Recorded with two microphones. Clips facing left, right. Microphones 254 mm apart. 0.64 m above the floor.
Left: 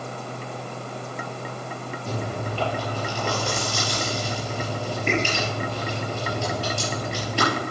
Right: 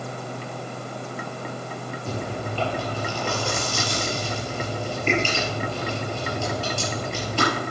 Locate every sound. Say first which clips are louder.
2.1 s chewing: even; 10° left (ahead or behind), 6 m